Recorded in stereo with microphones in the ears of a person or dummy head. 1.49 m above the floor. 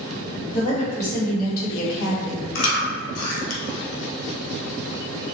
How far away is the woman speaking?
About 1.7 m.